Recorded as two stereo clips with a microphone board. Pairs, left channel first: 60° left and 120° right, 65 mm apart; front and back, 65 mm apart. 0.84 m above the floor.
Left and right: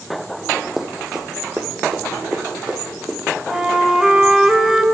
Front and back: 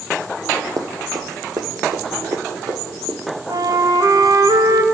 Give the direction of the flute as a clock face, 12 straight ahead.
7 o'clock.